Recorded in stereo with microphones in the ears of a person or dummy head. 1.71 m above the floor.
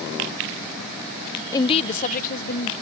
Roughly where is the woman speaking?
Left.